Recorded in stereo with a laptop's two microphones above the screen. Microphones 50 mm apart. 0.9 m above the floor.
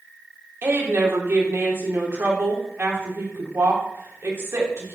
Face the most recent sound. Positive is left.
turn(degrees=-55)  # may be behind; listen again after turning